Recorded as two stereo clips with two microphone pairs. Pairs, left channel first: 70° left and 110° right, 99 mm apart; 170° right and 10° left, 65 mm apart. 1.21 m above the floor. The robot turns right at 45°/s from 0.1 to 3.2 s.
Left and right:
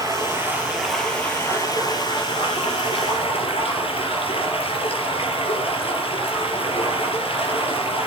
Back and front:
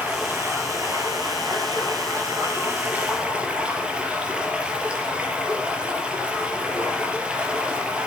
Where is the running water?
60° right, 4.5 m; by 8.1 s 80° left, 4.5 m.